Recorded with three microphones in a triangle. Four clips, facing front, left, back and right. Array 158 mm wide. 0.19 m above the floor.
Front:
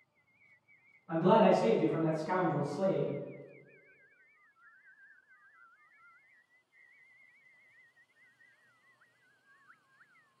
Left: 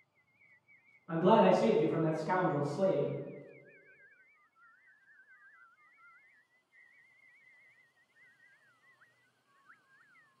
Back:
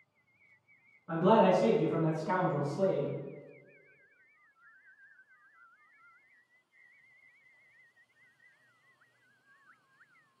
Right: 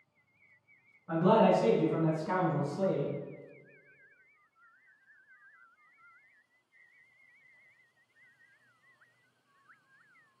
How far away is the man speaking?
About 1.9 m.